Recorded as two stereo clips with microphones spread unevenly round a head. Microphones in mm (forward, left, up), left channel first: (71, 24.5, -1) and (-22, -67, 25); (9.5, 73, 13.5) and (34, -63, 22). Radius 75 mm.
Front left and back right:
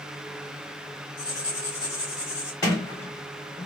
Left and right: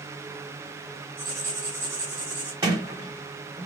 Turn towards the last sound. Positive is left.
turn(degrees=-20)